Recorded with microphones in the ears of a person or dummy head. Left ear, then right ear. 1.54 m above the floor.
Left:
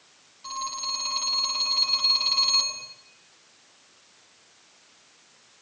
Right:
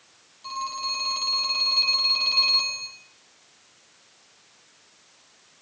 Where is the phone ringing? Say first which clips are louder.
Right 2 dB; 5° right (ahead or behind), 6.5 m.